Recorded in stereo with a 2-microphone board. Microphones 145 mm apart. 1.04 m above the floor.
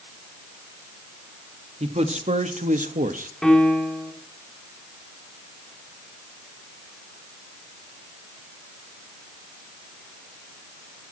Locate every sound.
1.8 s a man speaking: 50° right (ahead or behind), 1.9 m; by 3.3 s 70° right (ahead or behind), 1.4 m
3.4 s a piano: 5° left (ahead or behind), 3 m